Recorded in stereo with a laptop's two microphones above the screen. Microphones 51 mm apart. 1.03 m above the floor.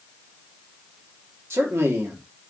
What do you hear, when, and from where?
1.5 s a man speaking: 60° right (ahead or behind), 1.4 m